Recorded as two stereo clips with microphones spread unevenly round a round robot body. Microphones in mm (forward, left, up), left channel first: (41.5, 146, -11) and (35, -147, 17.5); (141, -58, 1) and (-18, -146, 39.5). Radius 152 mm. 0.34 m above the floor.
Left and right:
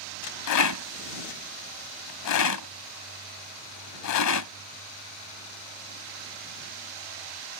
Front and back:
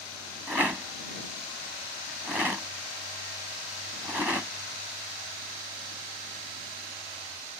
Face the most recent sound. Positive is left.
turn(degrees=120)